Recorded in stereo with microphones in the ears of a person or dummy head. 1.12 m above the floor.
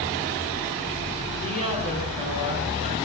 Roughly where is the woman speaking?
Right.